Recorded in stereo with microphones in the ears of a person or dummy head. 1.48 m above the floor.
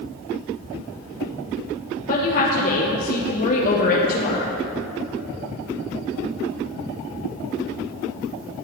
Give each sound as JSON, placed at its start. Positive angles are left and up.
{"t": 2.1, "sound": "a woman speaking", "side_deg": 45, "distance_m": 1.0}